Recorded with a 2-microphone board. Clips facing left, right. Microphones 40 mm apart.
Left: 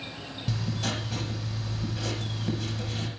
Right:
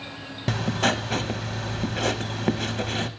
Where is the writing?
60° right (ahead or behind), 0.5 m.